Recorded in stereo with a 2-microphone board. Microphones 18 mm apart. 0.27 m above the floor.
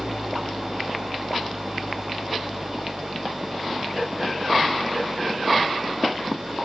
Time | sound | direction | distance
0.0 | an engine running | 35° right (ahead or behind) | ?